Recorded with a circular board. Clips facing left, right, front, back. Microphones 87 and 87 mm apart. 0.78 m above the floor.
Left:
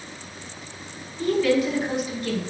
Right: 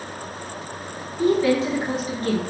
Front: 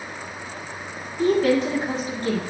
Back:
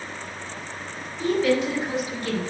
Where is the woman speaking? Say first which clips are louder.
Right 2 dB, front 3 dB; 25° right, 2.5 m; by 2.4 s 55° right, 2 m.